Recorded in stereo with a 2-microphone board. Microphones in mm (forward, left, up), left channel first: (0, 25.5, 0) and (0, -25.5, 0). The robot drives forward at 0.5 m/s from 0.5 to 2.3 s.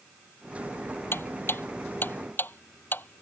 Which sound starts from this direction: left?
Ticking, at 1.1 s.